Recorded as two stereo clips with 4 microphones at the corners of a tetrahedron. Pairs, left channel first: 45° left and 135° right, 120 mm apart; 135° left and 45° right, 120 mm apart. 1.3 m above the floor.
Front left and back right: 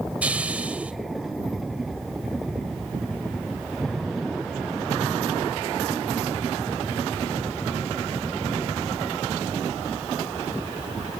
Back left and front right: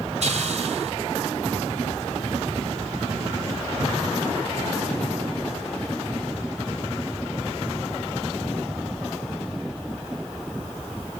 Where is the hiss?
55° right, 2 m.